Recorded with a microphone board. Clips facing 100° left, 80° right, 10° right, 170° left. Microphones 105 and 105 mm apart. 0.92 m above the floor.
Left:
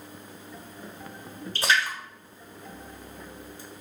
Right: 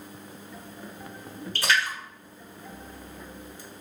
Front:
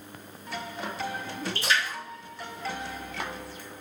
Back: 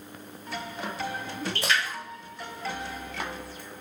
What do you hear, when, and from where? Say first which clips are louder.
1.6 s a splash: left 1 dB, even; 165° left, 1.3 m